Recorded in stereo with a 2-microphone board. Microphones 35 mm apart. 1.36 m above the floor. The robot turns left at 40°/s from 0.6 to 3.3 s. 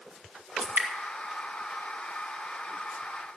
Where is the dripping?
50° right (ahead or behind), 2 m; by 0.9 s 60° right (ahead or behind), 2 m.